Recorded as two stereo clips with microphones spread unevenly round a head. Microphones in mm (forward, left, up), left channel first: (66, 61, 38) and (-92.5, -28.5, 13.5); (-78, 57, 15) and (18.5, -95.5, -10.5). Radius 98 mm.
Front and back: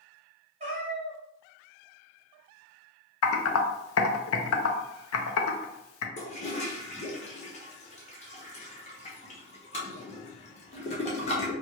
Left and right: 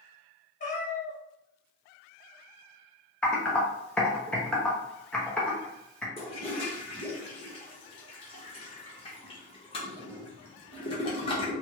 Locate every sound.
0.6 s a cat meowing: 150° left, 1.1 m
3.2 s typing on a keyboard: 35° left, 0.5 m
6.2 s a toilet flushing: 70° left, 0.7 m